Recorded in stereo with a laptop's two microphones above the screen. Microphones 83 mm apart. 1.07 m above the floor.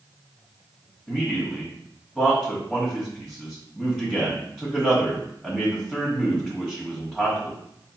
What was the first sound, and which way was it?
A man speaking, centre (ahead or behind).